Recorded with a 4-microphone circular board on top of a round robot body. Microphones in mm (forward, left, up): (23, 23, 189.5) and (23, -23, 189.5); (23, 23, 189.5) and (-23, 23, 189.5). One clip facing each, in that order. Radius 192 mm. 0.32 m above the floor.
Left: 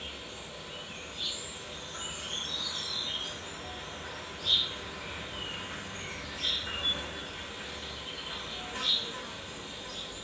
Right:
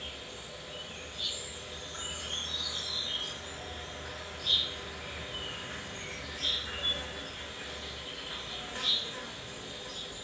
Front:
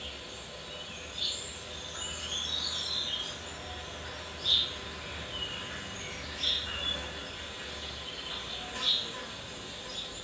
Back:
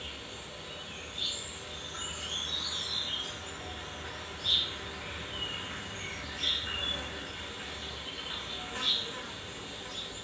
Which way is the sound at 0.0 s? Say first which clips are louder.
Left 1 dB, even; 120° left.